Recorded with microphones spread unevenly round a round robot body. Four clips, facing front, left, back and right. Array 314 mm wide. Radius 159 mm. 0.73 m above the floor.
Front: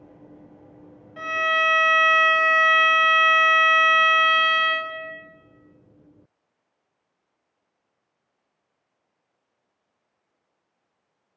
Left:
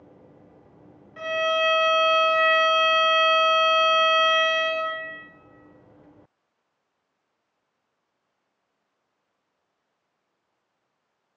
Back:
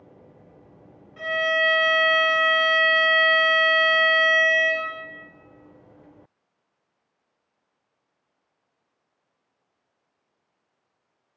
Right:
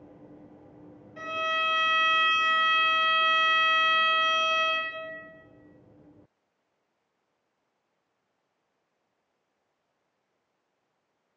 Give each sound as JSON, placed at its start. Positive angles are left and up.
{"t": 1.2, "sound": "a violin", "azimuth_deg": 30, "distance_m": 1.3}